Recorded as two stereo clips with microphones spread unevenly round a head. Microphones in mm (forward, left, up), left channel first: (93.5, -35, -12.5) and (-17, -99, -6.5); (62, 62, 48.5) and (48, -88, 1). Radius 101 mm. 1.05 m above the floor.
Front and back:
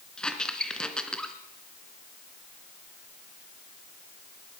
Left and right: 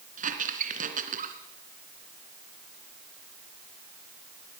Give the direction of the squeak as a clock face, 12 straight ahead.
2 o'clock.